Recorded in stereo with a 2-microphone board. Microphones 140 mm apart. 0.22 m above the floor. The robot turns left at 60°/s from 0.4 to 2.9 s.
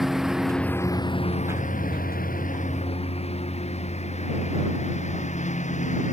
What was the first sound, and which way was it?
A lawn mower, centre (ahead or behind).